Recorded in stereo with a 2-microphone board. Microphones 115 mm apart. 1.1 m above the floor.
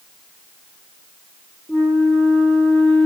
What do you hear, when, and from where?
1.7 s a flute: 10° left (ahead or behind), 1.1 m